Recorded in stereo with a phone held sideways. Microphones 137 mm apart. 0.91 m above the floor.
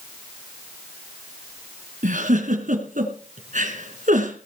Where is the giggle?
80° right, 3 m.